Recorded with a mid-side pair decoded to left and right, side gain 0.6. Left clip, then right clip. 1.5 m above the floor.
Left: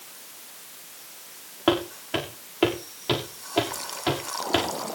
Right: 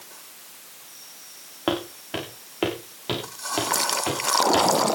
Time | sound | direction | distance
1.7 | footsteps | 5° right | 6 m